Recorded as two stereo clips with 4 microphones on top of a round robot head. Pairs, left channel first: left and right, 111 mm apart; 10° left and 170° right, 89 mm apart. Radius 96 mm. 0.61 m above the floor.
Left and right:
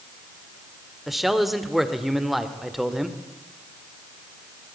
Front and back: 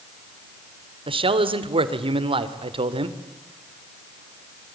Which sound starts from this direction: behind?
A man speaking, at 1.1 s.